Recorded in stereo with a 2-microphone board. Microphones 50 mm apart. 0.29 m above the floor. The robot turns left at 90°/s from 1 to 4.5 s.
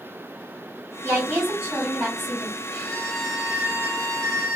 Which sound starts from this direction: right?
A woman speaking, at 1.0 s.